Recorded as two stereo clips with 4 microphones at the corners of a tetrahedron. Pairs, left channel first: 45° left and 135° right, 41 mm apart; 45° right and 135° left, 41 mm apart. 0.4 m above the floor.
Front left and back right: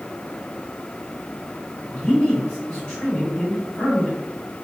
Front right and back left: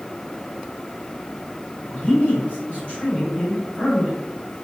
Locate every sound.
1.9 s a man speaking: 10° right, 1.7 m